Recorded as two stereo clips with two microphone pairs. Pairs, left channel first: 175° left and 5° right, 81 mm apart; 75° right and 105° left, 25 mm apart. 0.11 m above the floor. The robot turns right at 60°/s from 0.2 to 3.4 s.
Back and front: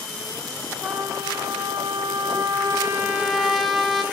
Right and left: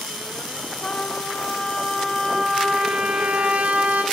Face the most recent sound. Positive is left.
turn(degrees=85)